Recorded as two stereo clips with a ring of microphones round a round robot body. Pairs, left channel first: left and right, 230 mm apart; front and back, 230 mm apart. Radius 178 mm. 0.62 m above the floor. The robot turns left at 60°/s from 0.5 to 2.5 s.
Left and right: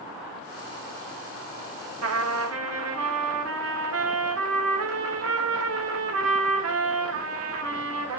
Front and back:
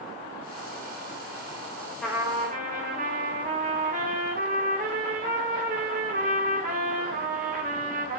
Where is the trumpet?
90° right, 1.4 m; by 8.2 s 120° right, 1.4 m.